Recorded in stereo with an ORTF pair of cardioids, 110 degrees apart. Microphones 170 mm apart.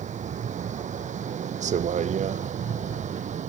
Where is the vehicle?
45° right.